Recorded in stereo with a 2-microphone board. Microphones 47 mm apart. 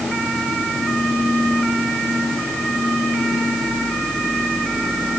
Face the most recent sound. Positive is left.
No sound to turn to.